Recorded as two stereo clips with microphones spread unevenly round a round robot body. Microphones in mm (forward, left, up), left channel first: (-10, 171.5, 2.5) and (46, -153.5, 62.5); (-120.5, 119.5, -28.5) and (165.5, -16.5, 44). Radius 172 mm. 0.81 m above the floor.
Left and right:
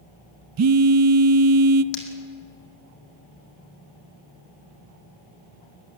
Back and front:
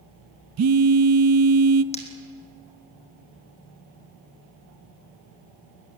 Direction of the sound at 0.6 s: 55° right.